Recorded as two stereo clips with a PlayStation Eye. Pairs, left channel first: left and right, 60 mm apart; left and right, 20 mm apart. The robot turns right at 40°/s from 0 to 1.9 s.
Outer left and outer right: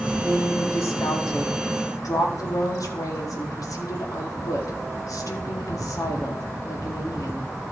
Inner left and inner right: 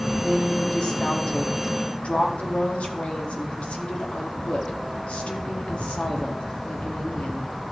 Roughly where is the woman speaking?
Ahead left.